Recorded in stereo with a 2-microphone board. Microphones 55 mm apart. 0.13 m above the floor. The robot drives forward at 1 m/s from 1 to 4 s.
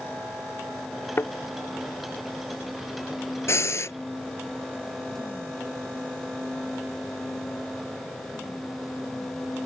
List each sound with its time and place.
1.2 s a thud: 50° left (ahead or behind)
3.5 s breathing: 60° left (ahead or behind)